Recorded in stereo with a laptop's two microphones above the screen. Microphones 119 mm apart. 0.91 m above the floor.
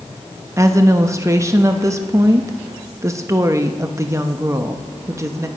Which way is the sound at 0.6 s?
25° right (ahead or behind).